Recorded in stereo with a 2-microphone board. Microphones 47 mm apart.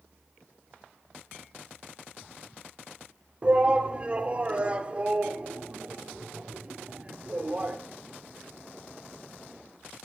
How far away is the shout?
About 1.3 m.